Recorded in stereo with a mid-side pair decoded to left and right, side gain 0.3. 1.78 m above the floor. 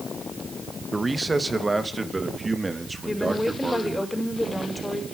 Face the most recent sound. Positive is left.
turn(degrees=15)